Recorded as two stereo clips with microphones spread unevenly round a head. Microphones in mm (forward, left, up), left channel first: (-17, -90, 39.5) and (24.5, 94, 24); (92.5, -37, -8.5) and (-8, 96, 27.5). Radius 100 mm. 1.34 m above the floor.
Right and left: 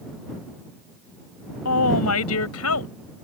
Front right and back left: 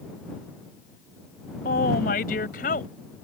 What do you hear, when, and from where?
1.6 s a woman speaking: 105° right; by 2.9 s 110° right